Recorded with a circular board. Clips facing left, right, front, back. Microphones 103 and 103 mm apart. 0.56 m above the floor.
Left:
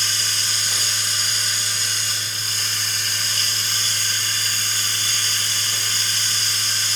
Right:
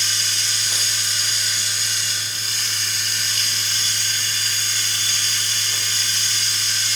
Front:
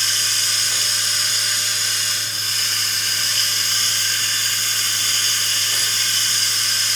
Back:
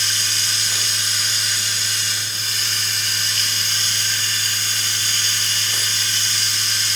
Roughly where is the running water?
Ahead left.